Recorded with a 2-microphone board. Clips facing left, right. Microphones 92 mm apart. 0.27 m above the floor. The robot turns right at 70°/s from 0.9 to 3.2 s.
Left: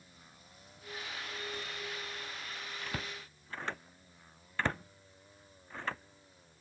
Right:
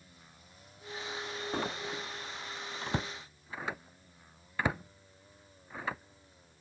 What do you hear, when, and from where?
1.5 s a door slam: 55° right (ahead or behind); by 6.6 s 10° right (ahead or behind)